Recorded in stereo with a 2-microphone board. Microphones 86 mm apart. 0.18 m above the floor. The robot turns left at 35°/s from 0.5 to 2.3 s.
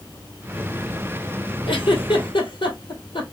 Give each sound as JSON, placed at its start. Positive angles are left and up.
{"t": 1.7, "sound": "a giggle", "side_deg": 80, "distance_m": 1.8}